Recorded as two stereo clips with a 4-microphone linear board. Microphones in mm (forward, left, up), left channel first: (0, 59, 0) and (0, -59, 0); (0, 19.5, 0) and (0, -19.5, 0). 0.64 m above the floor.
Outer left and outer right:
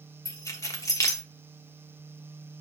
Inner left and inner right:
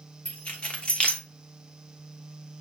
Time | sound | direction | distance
0.2 | keys jangling | 25° left (ahead or behind) | 0.9 m